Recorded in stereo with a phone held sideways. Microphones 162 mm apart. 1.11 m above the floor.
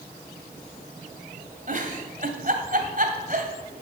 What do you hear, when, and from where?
1.7 s a giggle: 55° right (ahead or behind), 1.9 m